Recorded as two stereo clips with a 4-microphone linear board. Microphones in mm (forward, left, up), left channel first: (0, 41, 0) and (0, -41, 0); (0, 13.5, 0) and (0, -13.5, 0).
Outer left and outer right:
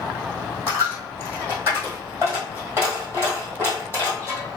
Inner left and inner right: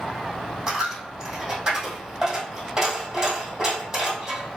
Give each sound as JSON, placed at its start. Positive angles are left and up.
{"t": 0.7, "sound": "a dropped coin", "side_deg": -25, "distance_m": 1.8}